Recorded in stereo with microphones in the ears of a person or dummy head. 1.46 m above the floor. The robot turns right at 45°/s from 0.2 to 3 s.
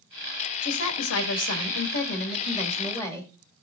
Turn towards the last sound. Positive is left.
turn(degrees=160)